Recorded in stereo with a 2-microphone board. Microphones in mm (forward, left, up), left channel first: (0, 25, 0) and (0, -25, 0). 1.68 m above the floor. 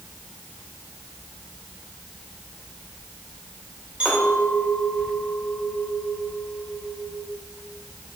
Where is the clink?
20° right (ahead or behind), 2 m.